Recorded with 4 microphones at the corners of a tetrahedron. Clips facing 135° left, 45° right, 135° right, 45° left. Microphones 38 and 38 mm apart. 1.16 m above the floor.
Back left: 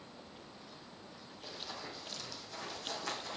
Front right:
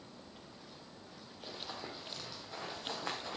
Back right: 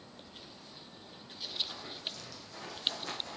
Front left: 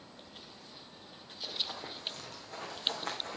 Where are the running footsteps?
15° left, 1.9 m; by 3.4 s 10° left, 3 m.